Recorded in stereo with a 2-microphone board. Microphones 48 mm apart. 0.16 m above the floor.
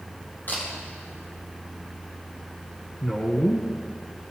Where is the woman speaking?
25° left (ahead or behind), 1.5 m.